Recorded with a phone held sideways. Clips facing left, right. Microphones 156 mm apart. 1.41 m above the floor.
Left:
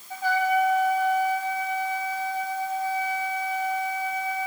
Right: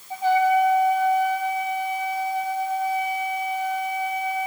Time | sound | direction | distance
0.1 | a trumpet | 25° right (ahead or behind) | 4 m